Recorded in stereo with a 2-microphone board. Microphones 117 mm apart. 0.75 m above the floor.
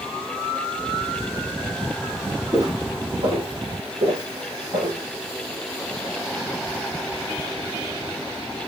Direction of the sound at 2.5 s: 40° right (ahead or behind).